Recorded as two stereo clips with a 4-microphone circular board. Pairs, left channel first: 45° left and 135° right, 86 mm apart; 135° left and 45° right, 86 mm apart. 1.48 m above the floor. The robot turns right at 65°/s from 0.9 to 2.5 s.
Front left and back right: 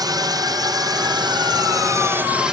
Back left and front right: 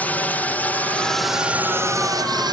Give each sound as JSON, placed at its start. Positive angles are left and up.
{"t": 0.0, "sound": "a drone", "azimuth_deg": -155}